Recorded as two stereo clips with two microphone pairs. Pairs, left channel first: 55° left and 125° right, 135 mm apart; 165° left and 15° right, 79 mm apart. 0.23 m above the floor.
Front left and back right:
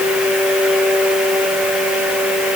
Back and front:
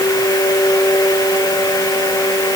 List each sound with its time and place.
Only background noise.